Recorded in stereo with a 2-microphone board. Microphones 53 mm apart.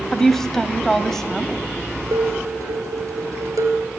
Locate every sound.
0.1 s a woman speaking: 5° left (ahead or behind), 1.6 m
2.1 s dishes clattering: 75° right (ahead or behind), 3.5 m